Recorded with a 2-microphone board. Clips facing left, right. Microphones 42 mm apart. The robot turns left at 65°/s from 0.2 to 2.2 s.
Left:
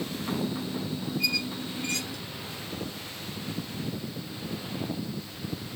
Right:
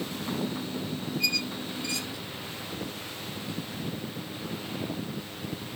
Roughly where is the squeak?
Centre.